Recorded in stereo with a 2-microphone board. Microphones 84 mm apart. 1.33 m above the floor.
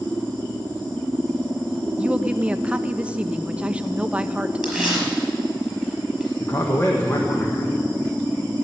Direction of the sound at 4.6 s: Centre (ahead or behind).